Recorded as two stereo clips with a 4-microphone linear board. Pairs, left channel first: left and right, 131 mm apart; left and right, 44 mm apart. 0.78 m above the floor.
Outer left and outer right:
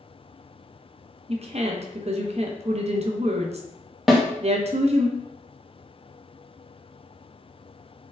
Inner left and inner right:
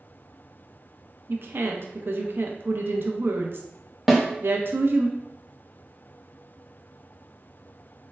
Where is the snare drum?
Centre (ahead or behind), 0.6 m.